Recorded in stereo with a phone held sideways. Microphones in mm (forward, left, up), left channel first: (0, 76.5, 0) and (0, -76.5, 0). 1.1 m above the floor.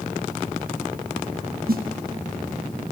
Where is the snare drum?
80° right, 0.7 m.